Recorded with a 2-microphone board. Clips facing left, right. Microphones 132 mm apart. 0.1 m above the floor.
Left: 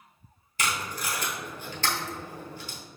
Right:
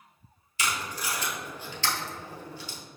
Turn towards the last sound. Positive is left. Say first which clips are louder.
# left 1 dB
turn(degrees=50)  # may be behind; listen again after turning